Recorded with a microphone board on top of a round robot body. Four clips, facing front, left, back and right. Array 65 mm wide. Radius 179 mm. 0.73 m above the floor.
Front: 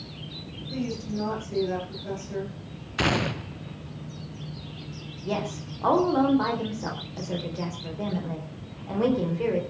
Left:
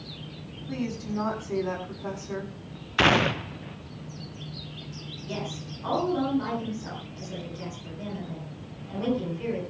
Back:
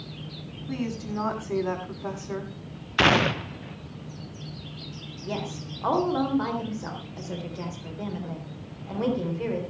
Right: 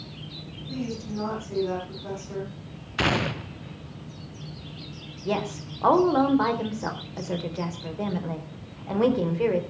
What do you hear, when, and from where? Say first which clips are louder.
0.7 s a woman speaking: left 1 dB, even; 160° left, 8.5 m
3.0 s a gunshot: left 4 dB, back 5 dB; 145° left, 0.7 m
5.2 s a woman speaking: right 7 dB, front 3 dB; 90° right, 4 m